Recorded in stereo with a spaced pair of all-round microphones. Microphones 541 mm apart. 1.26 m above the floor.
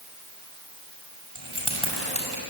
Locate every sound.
1.4 s keys jangling: 85° right, 6.5 m; by 2.4 s 90° right, 7 m